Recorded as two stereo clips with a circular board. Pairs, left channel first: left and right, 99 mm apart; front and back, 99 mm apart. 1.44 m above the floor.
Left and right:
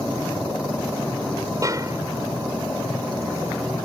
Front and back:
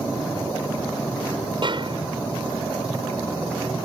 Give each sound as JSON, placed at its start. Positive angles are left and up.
{"t": 1.6, "sound": "a snare drum", "azimuth_deg": -145}